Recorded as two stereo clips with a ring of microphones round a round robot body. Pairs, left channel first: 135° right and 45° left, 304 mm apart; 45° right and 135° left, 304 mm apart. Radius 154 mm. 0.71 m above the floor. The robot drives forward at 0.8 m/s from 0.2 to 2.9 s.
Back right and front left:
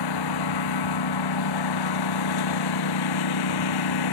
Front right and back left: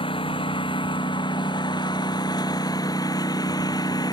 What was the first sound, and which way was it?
A lawn mower, 120° right.